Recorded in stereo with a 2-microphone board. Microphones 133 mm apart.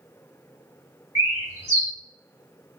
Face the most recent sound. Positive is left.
turn(degrees=-25)  # may be behind; listen again after turning